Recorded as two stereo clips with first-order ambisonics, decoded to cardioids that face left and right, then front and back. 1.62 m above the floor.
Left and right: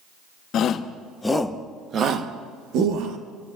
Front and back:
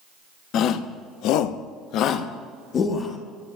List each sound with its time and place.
0.5 s a shout: 40° left, 1.2 m; by 3.2 s 65° right, 1.7 m